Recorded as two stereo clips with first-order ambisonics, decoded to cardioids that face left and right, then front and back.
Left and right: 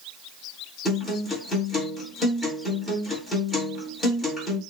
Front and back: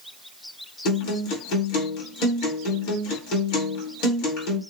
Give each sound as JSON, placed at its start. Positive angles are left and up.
{"t": 0.8, "sound": "a guitar", "azimuth_deg": 5, "distance_m": 2.5}